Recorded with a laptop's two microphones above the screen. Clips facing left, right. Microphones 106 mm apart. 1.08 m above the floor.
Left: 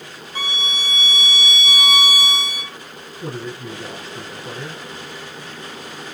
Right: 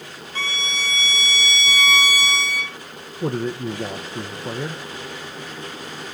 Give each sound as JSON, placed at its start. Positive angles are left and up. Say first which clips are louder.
{"t": 0.3, "sound": "a violin", "louder": "left 1 dB", "side_deg": 15, "distance_m": 0.7}
{"t": 3.2, "sound": "a man speaking", "louder": "right 6 dB", "side_deg": -50, "distance_m": 0.8}